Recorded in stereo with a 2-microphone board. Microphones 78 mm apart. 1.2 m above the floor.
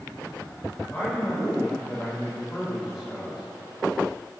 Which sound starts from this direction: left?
A man speaking, at 0.9 s.